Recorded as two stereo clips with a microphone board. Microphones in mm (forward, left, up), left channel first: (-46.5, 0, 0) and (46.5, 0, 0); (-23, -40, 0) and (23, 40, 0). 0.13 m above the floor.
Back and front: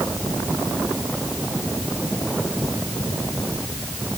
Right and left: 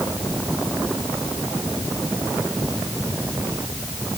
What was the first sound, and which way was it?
Only background noise.